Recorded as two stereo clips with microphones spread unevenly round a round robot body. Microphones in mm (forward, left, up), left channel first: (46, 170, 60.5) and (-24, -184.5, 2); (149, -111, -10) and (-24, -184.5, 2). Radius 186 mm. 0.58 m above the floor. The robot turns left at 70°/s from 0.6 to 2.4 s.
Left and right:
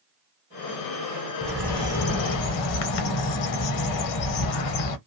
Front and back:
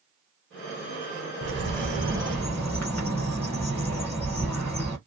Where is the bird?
Straight behind, 0.7 m; by 5.0 s 110° left, 0.7 m.